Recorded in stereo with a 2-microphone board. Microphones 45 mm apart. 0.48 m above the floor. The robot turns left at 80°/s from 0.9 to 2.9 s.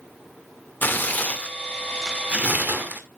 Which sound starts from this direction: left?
Tearing paper, at 0.8 s.